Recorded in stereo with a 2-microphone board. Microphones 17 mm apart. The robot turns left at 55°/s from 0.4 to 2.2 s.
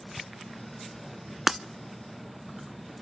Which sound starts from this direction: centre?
Breaking glass, at 1.5 s.